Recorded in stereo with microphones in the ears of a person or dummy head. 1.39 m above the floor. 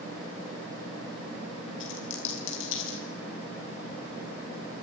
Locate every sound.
1.8 s a dropped coin: 75° left (ahead or behind), 6.5 m